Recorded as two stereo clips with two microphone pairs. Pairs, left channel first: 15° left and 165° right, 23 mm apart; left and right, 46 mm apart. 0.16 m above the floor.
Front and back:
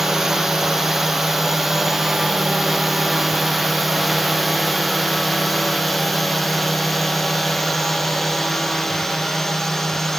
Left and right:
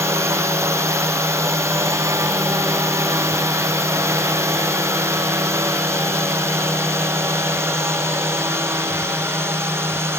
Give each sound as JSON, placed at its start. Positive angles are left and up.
{"t": 0.0, "sound": "a drone", "azimuth_deg": -95}